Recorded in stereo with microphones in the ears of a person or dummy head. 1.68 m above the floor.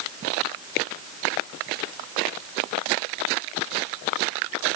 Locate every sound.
Only background noise.